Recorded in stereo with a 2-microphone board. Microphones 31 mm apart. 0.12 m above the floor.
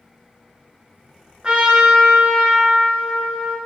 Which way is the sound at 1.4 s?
30° right (ahead or behind).